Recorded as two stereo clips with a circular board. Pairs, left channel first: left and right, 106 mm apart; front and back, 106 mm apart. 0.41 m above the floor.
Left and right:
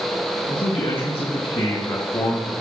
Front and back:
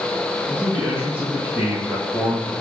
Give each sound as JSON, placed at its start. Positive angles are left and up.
{"t": 0.5, "sound": "a man speaking", "azimuth_deg": 125, "distance_m": 3.0}